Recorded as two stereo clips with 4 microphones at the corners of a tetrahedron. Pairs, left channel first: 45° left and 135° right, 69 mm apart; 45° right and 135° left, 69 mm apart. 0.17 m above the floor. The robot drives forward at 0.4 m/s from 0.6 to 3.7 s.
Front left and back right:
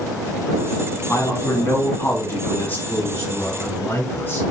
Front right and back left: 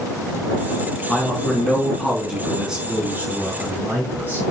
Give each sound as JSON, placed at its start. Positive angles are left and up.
{"t": 1.1, "sound": "a man speaking", "azimuth_deg": 30, "distance_m": 1.5}
{"t": 2.9, "sound": "a man speaking", "azimuth_deg": 80, "distance_m": 1.8}